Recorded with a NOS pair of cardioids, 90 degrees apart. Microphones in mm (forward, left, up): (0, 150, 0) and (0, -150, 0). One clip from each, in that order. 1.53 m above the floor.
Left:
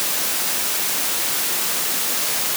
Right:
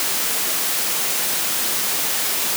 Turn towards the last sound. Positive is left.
No sound to turn to.